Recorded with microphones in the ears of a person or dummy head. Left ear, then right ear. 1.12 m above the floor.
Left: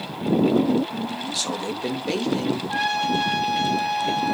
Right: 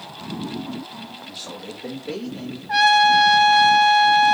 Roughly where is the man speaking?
Left.